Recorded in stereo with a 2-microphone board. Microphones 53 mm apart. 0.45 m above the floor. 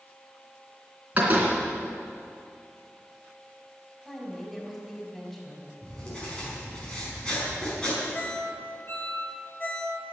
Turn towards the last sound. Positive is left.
turn(degrees=40)  # may be behind; listen again after turning